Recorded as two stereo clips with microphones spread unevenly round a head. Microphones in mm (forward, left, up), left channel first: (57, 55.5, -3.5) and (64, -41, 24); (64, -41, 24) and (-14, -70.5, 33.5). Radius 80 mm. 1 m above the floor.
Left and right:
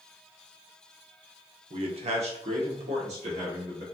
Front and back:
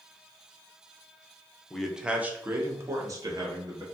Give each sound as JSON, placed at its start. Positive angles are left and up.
{"t": 1.7, "sound": "a man speaking", "azimuth_deg": -60, "distance_m": 0.7}